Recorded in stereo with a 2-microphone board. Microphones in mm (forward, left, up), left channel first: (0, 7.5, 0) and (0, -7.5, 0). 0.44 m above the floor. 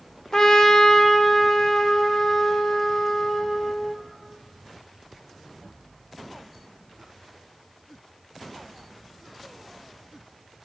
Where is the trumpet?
40° left (ahead or behind), 0.6 m.